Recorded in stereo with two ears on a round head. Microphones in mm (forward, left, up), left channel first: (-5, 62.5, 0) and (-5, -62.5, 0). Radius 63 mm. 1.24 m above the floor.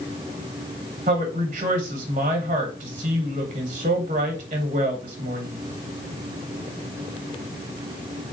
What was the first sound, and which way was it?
A woman speaking, 45° right (ahead or behind).